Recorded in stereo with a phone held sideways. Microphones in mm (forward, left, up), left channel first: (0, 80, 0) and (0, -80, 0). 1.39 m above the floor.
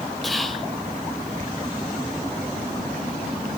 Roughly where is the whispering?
Centre.